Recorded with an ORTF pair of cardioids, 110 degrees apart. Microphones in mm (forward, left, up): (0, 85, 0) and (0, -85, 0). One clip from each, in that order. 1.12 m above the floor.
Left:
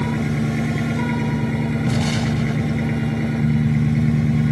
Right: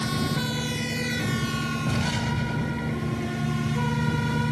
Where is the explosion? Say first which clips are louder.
Left 5 dB; 25° left.